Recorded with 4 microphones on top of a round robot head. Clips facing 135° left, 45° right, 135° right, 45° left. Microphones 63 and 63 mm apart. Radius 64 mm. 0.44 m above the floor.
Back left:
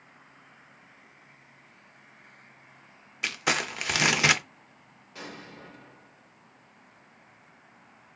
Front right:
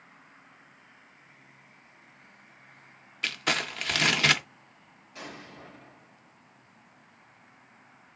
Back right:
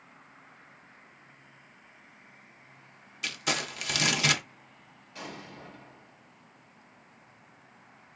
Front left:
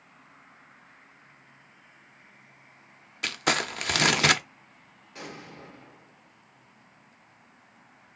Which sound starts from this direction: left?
An explosion, at 5.2 s.